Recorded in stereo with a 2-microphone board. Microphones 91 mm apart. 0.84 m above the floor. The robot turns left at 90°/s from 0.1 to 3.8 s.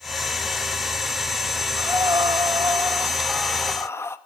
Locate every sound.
1.8 s breathing: 35° right, 1.1 m; by 4.2 s 140° left, 1.1 m